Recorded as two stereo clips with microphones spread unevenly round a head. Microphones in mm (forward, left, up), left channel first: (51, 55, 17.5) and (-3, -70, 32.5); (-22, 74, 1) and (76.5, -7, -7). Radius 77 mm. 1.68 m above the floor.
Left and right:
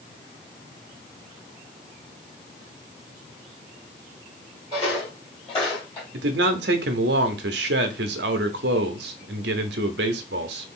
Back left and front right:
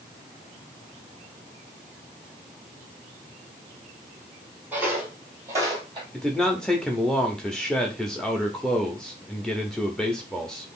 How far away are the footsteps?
About 2 m.